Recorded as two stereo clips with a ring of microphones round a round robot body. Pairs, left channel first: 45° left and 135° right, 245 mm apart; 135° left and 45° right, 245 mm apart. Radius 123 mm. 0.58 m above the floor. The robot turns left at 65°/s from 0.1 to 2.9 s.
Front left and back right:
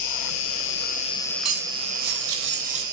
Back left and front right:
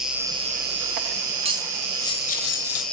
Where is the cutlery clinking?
110° right, 1.6 m; by 2.8 s 160° left, 1.6 m.